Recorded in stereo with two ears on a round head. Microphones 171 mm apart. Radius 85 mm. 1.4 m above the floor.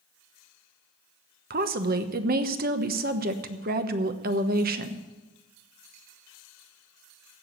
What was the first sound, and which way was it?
A woman speaking, 50° right (ahead or behind).